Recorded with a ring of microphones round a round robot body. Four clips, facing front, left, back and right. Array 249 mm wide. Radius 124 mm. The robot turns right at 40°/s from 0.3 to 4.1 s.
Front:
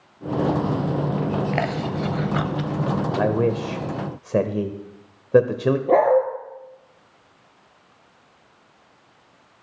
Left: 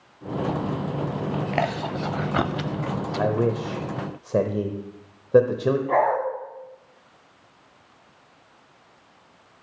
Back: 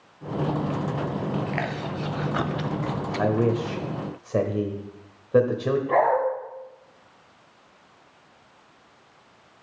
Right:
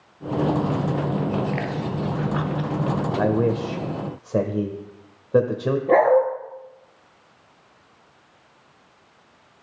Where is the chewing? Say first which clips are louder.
Left 1 dB, front 5 dB; 50° left, 0.7 m; by 3.3 s 120° left, 0.7 m.